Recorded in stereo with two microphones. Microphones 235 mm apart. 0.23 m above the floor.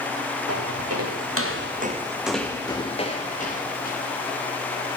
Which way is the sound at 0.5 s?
80° right.